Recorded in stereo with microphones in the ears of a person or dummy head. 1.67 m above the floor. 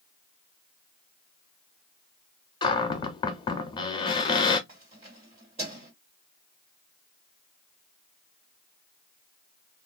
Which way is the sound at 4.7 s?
30° right (ahead or behind).